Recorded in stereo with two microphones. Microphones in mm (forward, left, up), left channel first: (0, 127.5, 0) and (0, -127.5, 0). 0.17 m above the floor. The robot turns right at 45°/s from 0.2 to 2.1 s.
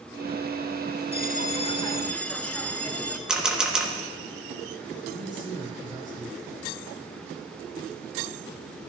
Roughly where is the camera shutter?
Centre.